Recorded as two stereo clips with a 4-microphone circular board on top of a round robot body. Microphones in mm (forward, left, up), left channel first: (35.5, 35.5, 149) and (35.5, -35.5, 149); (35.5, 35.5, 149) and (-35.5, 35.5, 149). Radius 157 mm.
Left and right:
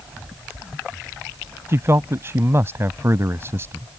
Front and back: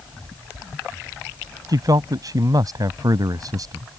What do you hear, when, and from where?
1.7 s a man speaking: 145° right